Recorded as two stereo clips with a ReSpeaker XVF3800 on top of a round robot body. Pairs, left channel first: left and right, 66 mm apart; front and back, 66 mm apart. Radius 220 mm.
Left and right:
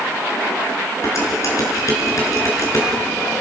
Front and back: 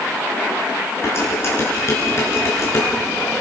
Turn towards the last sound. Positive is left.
turn(degrees=50)